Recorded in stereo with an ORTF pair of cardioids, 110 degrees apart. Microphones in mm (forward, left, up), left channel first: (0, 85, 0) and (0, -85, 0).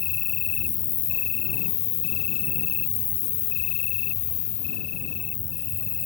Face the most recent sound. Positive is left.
turn(degrees=70)